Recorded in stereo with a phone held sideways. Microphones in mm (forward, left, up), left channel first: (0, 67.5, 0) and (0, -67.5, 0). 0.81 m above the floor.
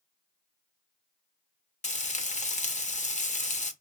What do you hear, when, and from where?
1.8 s frying: 60° left (ahead or behind), 0.6 m